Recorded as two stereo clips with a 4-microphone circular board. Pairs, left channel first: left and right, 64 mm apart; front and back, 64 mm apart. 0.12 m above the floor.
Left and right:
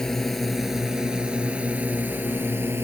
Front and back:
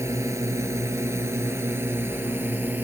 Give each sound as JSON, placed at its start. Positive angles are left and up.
{"t": 0.0, "sound": "a drone", "azimuth_deg": 170}